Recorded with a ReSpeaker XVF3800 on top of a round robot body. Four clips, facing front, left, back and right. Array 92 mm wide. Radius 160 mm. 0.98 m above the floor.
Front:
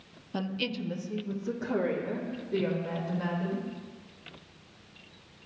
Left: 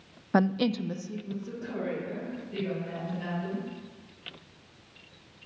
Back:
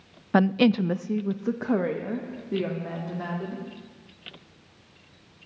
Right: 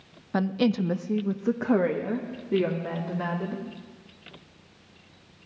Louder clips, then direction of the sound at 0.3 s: Right 1 dB, back 13 dB; 155° left.